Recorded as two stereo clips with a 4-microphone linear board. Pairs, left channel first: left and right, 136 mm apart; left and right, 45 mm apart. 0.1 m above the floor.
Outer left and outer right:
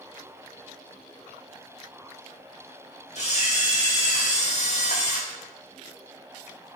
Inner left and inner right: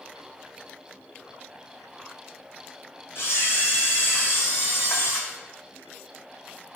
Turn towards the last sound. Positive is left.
turn(degrees=60)  # may be behind; listen again after turning